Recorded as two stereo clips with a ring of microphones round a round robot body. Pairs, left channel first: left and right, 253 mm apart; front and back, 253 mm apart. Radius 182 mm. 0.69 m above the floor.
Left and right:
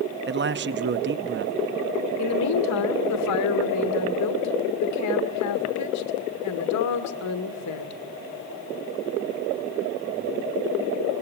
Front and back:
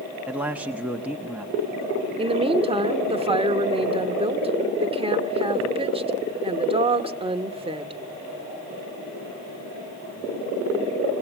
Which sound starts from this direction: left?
A woman speaking, at 2.2 s.